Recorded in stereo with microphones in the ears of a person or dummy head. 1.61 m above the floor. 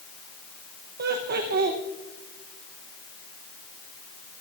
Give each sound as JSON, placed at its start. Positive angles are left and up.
{"t": 1.0, "sound": "laughter", "side_deg": -45, "distance_m": 0.9}